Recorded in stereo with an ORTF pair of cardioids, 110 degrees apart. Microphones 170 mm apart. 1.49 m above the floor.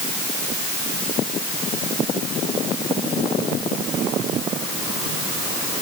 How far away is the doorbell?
No doorbell in this recording.